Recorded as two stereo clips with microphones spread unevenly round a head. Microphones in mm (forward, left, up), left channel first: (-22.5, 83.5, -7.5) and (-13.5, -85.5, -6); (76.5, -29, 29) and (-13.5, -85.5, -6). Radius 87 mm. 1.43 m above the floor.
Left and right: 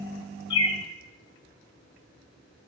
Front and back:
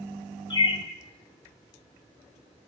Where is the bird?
35° left, 0.7 m.